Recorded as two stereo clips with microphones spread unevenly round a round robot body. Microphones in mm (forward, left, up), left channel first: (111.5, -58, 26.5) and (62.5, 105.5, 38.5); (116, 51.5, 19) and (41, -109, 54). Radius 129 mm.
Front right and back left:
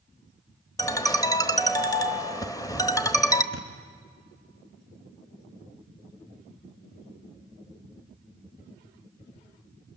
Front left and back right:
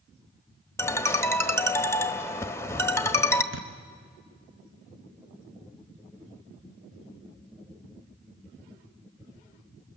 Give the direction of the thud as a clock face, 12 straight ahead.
4 o'clock.